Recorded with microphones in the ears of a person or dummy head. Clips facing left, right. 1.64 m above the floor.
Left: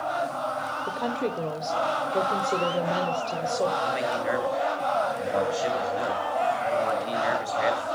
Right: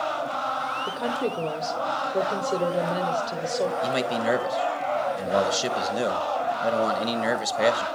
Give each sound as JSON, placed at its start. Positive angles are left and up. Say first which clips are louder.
{"t": 0.9, "sound": "a woman speaking", "louder": "right 1 dB", "side_deg": -10, "distance_m": 1.0}
{"t": 3.8, "sound": "a man speaking", "louder": "right 2 dB", "side_deg": -55, "distance_m": 1.4}